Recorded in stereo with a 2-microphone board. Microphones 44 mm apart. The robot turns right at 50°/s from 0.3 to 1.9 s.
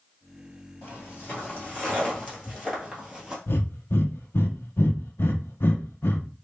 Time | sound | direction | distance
0.8 | footsteps | 50° left (ahead or behind) | 2 m
3.5 | breathing | 55° left (ahead or behind) | 0.5 m